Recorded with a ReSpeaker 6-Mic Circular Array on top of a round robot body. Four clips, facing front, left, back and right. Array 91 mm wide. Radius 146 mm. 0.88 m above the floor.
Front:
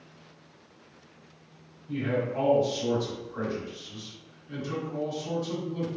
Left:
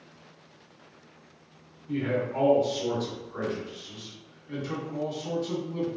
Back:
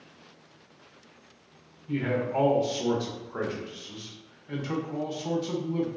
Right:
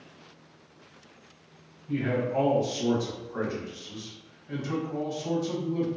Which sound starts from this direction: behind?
A man speaking, at 1.9 s.